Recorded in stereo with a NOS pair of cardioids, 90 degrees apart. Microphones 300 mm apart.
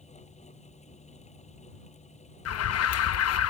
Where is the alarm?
55° left.